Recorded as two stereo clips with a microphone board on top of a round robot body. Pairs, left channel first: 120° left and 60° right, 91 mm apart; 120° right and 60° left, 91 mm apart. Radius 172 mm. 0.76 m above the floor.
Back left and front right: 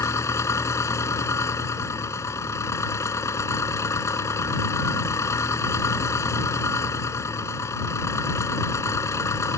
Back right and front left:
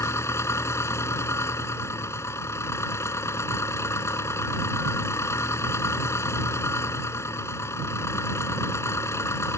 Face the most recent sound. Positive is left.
turn(degrees=180)